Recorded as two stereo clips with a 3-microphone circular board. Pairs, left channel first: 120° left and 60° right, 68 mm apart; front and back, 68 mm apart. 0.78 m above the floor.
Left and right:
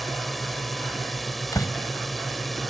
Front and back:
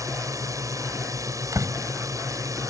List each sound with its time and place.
0.0 s a drone: 150° right
1.5 s a door slam: 150° left